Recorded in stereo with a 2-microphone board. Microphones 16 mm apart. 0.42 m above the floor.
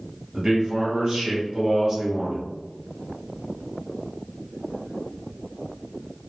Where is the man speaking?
40° right (ahead or behind), 1.6 m.